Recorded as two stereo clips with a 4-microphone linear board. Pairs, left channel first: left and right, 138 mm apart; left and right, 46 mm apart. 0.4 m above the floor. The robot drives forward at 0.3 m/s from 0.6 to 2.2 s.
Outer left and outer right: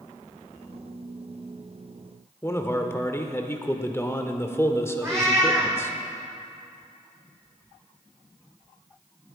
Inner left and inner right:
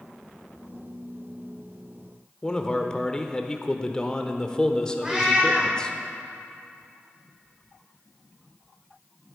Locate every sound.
2.4 s a man speaking: 20° left (ahead or behind), 0.9 m
5.0 s a cat meowing: 20° right (ahead or behind), 3 m